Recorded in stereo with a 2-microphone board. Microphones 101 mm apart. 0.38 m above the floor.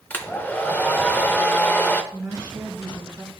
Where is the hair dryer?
20° left (ahead or behind), 0.7 m.